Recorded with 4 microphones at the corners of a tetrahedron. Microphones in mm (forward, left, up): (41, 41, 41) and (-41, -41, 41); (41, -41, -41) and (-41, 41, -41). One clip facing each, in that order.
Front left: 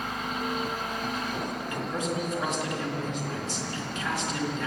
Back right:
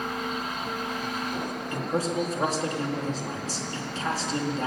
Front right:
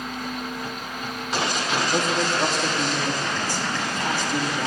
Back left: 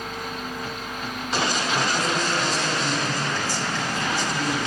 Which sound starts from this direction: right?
A man speaking, at 1.7 s.